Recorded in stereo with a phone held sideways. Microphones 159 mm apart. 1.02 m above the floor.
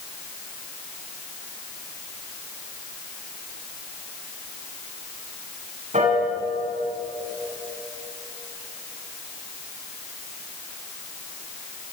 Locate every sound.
5.9 s a piano: 50° right (ahead or behind), 9.5 m